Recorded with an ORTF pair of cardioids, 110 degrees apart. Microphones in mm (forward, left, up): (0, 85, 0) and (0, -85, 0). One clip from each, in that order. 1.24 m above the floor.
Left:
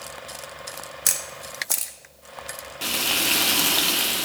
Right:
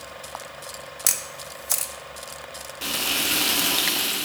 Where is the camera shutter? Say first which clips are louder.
Even; straight ahead, 0.6 m.